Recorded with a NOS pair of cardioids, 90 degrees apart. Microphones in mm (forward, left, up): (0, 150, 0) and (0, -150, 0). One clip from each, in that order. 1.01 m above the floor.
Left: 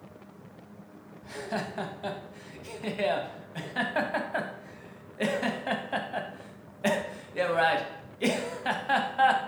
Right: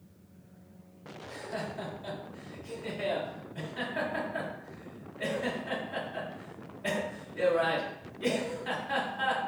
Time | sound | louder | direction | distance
1.2 | laughter | left 4 dB | 65° left | 0.7 m